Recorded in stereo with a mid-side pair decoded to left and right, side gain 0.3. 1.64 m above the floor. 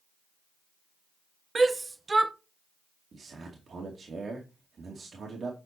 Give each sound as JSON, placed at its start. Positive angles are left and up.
{"t": 1.6, "sound": "a shout", "azimuth_deg": -35, "distance_m": 1.2}
{"t": 3.1, "sound": "a man speaking", "azimuth_deg": -65, "distance_m": 2.5}